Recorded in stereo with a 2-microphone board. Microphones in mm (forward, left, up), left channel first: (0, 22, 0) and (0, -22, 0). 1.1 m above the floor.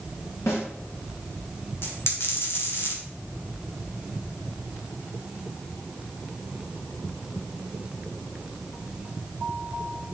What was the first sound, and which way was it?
A snare drum, 65° left (ahead or behind).